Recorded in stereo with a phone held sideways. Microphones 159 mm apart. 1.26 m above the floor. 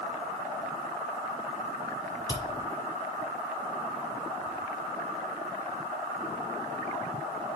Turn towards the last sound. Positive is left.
turn(degrees=25)  # may be behind; listen again after turning